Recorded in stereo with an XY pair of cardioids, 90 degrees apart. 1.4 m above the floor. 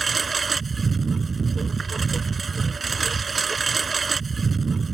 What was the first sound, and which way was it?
A lawn mower, 25° right.